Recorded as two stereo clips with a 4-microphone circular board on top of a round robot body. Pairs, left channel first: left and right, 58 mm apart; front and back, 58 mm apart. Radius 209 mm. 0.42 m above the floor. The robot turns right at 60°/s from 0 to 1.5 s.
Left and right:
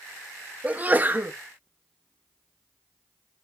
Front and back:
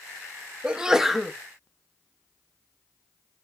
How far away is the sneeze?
About 0.9 m.